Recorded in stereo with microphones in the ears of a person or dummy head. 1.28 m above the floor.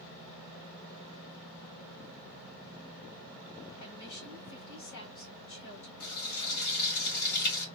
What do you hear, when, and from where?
3.8 s a woman speaking: 75° left (ahead or behind), 2 m
6.0 s frying: 55° left (ahead or behind), 2.5 m